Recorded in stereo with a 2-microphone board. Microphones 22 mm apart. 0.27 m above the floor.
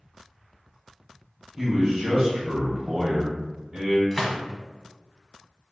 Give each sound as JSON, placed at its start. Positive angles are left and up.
{"t": 1.6, "sound": "a man speaking", "side_deg": -25, "distance_m": 1.1}
{"t": 4.1, "sound": "a gunshot", "side_deg": 5, "distance_m": 1.1}